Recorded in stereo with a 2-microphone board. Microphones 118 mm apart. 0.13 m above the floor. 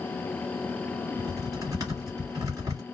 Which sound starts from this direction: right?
Typing on a keyboard, at 1.2 s.